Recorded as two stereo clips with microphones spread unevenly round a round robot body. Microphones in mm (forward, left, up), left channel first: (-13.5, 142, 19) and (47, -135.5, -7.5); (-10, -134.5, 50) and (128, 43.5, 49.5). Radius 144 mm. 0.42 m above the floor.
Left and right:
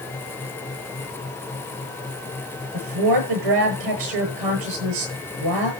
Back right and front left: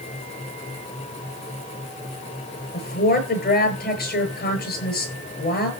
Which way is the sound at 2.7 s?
80° right.